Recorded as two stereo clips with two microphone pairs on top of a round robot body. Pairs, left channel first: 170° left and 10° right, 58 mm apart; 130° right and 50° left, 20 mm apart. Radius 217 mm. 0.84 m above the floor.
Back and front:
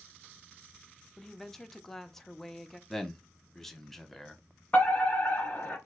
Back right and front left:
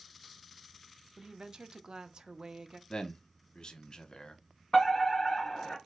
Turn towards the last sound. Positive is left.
turn(degrees=175)